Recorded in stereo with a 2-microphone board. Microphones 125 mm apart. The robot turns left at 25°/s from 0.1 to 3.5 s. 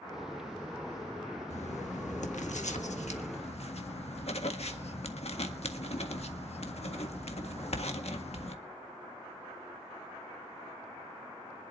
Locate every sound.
1.5 s writing: 110° left, 1.6 m; by 8.6 s 60° left, 1.6 m